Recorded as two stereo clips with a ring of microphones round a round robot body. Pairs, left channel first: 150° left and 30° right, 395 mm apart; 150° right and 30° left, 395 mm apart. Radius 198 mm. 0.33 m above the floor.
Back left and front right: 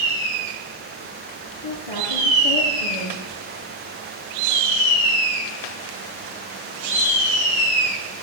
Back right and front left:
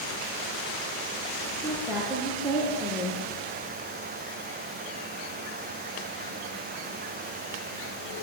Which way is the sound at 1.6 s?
115° left.